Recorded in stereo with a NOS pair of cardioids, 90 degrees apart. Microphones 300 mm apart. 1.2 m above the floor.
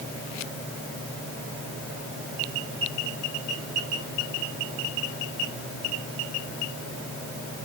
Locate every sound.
Only background noise.